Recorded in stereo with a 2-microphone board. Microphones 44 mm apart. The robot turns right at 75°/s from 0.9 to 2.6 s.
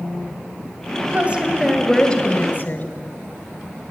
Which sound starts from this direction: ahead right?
A woman speaking, at 1.0 s.